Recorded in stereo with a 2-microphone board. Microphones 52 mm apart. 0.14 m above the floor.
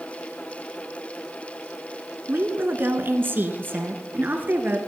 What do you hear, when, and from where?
2.3 s a woman speaking: 40° right (ahead or behind), 1.3 m; by 4.8 s 35° right (ahead or behind), 1.9 m